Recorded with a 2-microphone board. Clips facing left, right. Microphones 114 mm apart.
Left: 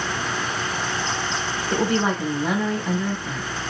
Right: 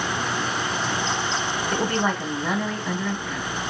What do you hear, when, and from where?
1.7 s a woman speaking: 20° left (ahead or behind), 5.5 m